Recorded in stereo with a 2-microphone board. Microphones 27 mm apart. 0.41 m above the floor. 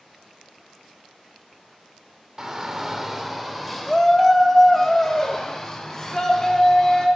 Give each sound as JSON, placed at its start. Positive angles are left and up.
{"t": 2.4, "sound": "a shout", "side_deg": -25, "distance_m": 0.8}